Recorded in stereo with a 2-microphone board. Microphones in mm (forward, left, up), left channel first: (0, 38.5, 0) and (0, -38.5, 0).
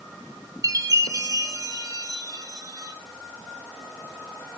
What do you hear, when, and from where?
0.6 s a chime: 50° right (ahead or behind), 4 m